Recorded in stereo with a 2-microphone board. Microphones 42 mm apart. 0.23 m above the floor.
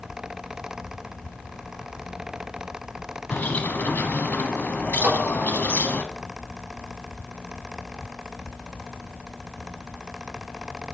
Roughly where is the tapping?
Right.